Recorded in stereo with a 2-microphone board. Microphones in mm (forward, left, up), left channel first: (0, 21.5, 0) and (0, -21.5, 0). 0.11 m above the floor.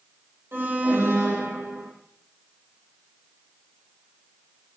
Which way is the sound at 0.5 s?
65° right (ahead or behind).